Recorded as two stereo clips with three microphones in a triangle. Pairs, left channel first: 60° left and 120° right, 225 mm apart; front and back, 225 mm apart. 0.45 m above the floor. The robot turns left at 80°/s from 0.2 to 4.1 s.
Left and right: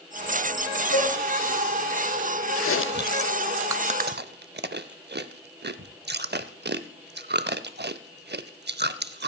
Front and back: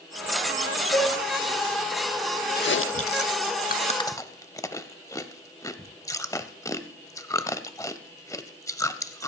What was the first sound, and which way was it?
A cowbell, 70° left.